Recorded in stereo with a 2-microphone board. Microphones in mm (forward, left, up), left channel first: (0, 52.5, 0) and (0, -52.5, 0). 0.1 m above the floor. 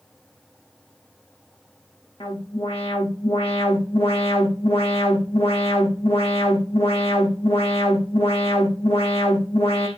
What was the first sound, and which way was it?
An alarm, 70° left (ahead or behind).